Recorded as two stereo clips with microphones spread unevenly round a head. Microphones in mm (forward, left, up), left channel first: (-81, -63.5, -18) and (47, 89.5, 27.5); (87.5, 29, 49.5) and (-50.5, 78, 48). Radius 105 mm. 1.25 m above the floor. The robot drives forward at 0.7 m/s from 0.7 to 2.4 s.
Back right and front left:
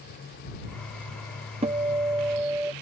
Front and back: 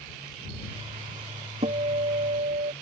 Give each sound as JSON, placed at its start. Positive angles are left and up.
{"t": 1.6, "sound": "a guitar", "azimuth_deg": 110}